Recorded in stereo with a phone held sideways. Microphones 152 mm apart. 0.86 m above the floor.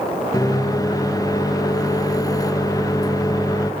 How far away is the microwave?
About 0.6 m.